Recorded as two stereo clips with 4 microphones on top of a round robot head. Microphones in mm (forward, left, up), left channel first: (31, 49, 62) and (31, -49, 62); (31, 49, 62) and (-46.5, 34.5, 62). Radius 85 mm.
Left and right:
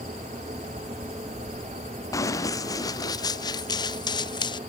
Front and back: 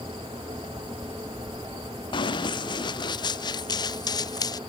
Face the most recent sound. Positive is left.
turn(degrees=50)